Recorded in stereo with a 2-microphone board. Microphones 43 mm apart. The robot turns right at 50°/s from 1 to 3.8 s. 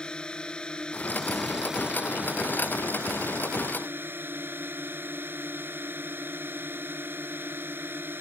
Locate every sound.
0.0 s a drone: 160° left; by 8.2 s 60° right